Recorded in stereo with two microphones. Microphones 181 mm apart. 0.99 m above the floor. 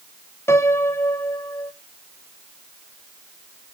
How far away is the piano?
About 0.8 m.